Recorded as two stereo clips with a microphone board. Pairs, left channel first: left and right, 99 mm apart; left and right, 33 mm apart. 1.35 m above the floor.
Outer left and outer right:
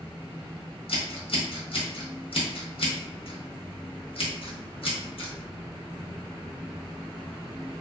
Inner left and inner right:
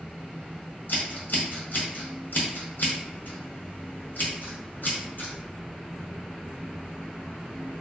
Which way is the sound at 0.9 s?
70° left (ahead or behind).